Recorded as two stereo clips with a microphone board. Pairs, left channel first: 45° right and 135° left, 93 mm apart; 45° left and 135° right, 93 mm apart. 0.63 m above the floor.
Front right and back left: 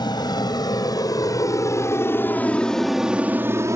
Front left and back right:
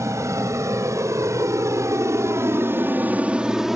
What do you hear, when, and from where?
0.0 s an aircraft: 80° right; by 3.8 s 140° left